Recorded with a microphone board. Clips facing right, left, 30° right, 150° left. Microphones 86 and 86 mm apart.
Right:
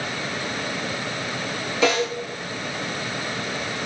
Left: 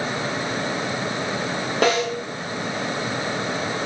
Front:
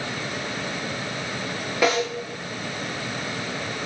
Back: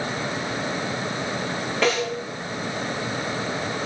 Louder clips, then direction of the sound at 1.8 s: Left 1 dB, front 1 dB; 50° left.